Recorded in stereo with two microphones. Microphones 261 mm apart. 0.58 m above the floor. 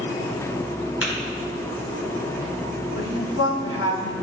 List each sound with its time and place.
1.0 s tapping: 60° left (ahead or behind), 3.5 m
3.0 s a woman speaking: 65° left (ahead or behind), 2.5 m